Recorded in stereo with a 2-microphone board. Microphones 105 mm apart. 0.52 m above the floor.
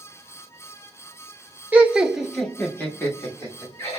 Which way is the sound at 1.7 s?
15° right (ahead or behind).